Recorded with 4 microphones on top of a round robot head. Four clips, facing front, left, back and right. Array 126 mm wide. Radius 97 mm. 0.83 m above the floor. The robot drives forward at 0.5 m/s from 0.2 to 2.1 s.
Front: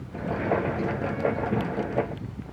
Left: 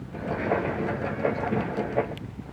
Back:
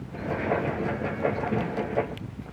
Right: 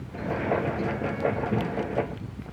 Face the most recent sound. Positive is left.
No sound to turn to.